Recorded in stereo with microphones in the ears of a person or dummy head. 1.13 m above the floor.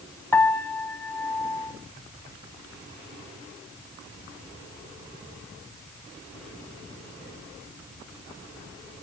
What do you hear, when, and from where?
0.3 s a piano: 15° left (ahead or behind), 1.3 m